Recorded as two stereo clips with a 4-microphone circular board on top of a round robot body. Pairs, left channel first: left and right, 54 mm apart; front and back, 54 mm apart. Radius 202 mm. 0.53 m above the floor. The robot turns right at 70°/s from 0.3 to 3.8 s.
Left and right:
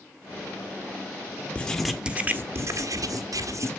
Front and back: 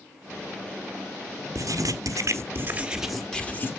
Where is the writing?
160° left, 1.3 m; by 3.7 s 50° right, 1.3 m.